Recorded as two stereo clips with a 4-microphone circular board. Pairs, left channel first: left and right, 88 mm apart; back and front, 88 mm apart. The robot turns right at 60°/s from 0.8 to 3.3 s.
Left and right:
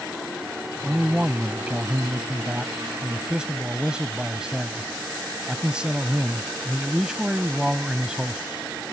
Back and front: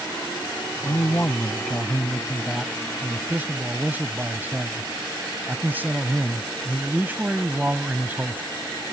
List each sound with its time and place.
0.8 s a man speaking: 175° right; by 8.4 s 25° right